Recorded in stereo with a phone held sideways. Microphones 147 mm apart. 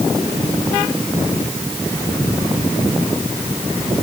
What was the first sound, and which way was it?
Only background noise.